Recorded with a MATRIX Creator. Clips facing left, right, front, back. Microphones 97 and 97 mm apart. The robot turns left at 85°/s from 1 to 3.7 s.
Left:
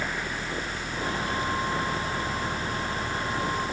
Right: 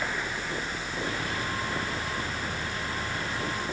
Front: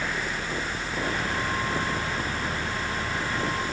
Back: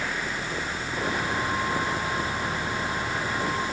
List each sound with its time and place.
Only background noise.